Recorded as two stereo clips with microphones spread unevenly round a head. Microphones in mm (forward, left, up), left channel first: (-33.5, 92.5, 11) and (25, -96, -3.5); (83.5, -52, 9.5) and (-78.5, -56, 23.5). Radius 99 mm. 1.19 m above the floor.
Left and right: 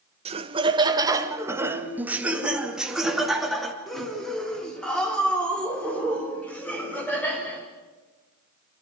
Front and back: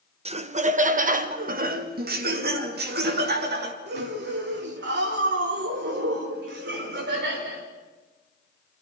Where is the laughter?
130° right, 1.4 m; by 7.7 s 170° right, 6 m.